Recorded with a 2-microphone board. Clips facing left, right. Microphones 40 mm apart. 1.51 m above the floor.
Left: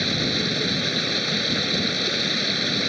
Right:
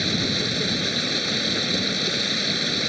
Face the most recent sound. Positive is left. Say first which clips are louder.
# even
turn(degrees=5)  # may be behind; listen again after turning